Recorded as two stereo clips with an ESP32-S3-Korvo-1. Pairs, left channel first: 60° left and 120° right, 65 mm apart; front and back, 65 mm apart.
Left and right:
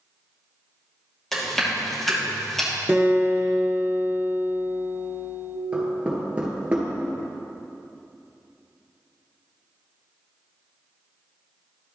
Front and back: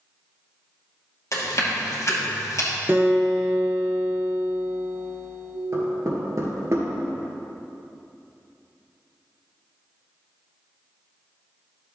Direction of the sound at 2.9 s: 160° right.